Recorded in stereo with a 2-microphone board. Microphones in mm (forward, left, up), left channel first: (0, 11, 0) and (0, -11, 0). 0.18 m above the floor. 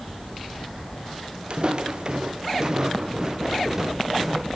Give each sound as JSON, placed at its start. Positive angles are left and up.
{"t": 1.5, "sound": "footsteps", "side_deg": -50}